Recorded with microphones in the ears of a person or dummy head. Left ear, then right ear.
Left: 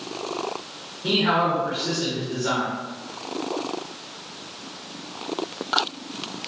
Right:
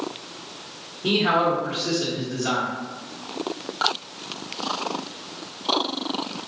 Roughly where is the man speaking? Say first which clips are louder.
Right 1 dB; right.